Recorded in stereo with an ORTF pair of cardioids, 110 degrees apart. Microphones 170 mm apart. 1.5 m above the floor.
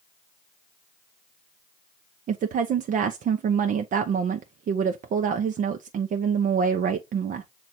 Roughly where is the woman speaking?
Ahead right.